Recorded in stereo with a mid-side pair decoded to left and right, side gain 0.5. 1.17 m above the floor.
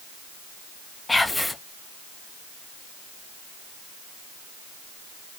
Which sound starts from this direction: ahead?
Whispering, at 1.1 s.